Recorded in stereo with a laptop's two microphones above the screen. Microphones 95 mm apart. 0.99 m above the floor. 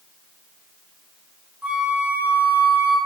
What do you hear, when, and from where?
1.6 s a flute: 15° right (ahead or behind), 0.6 m